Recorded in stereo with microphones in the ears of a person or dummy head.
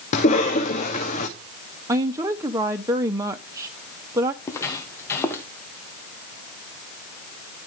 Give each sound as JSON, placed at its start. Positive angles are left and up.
{"t": 0.1, "sound": "a cough", "side_deg": 40, "distance_m": 2.0}
{"t": 1.9, "sound": "a woman speaking", "side_deg": -15, "distance_m": 0.7}
{"t": 4.4, "sound": "footsteps", "side_deg": 15, "distance_m": 2.5}